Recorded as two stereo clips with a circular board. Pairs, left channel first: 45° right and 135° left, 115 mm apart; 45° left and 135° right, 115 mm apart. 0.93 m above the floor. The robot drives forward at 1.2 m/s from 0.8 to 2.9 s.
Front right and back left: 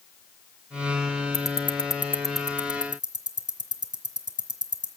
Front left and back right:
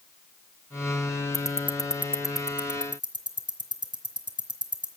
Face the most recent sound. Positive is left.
turn(degrees=180)